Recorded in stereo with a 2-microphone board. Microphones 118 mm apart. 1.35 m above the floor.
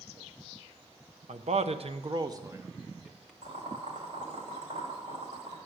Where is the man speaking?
75° right (ahead or behind), 0.8 m; by 3.3 s centre (ahead or behind), 1.1 m.